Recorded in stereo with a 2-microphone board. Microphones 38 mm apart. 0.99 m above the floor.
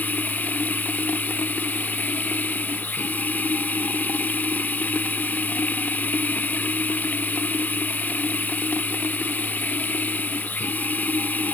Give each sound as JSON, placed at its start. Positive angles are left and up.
{"t": 0.0, "sound": "running water", "side_deg": 50}